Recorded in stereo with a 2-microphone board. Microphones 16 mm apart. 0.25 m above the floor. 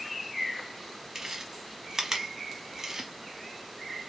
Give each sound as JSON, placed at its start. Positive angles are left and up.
{"t": 1.1, "sound": "chewing", "side_deg": -25, "distance_m": 0.8}